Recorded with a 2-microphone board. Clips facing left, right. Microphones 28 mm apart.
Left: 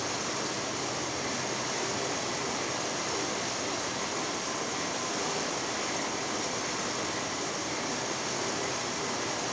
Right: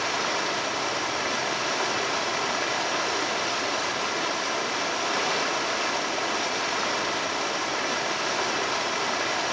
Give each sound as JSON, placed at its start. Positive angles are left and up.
{"t": 0.0, "sound": "running water", "side_deg": -60, "distance_m": 1.3}